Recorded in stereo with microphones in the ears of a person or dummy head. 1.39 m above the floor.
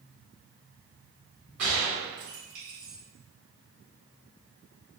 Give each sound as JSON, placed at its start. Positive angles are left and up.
{"t": 1.6, "sound": "a gunshot", "side_deg": -65, "distance_m": 1.7}